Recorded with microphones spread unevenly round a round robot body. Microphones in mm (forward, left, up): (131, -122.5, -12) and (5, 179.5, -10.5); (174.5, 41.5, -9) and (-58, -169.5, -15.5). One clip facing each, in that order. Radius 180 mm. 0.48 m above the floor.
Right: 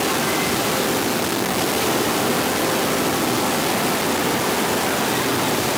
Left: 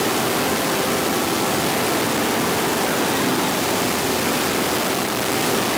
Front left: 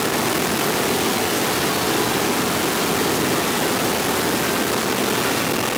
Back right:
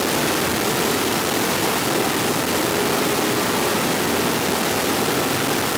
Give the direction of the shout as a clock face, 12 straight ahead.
I don't hear a shout.